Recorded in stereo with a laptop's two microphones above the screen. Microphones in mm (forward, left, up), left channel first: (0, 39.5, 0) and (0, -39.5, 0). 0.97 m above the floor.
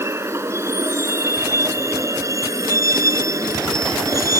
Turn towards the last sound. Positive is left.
turn(degrees=-45)  # may be behind; listen again after turning